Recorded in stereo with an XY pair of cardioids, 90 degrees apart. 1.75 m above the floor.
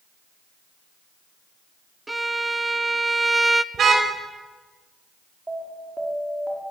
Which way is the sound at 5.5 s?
20° right.